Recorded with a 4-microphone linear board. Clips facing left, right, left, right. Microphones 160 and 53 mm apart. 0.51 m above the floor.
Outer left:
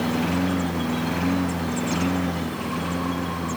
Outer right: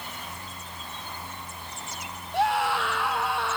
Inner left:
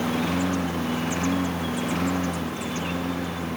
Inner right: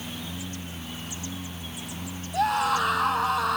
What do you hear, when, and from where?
0.0 s a lawn mower: 80° left
2.3 s a scream: 75° right (ahead or behind)